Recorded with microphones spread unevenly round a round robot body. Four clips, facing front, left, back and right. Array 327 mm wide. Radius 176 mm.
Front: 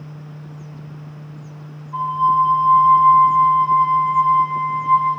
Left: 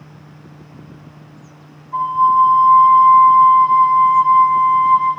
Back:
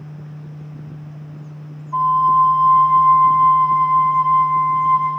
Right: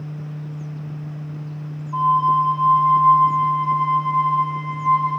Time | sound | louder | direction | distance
1.9 | a flute | left 3 dB, back 3 dB | 125° left | 1.3 m